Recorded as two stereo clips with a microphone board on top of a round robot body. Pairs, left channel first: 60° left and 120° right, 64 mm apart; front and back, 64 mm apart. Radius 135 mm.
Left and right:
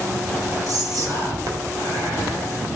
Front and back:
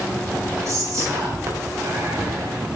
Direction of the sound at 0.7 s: 140° right.